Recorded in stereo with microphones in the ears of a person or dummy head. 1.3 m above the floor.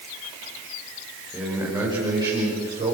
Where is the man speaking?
10° right (ahead or behind), 4.5 m; by 3.0 s 25° right (ahead or behind), 6 m.